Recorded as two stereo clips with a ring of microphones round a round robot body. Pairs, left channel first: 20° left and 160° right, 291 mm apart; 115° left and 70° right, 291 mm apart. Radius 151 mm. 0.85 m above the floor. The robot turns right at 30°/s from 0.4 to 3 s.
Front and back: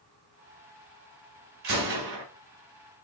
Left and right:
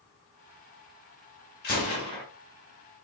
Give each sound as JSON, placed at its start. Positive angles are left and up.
{"t": 1.6, "sound": "a gunshot", "azimuth_deg": 170, "distance_m": 1.6}